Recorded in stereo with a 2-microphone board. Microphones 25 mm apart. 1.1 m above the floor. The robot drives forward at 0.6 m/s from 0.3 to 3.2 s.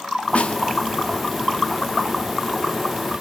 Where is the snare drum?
60° left (ahead or behind), 1.3 m; by 0.6 s 55° left (ahead or behind), 1.4 m.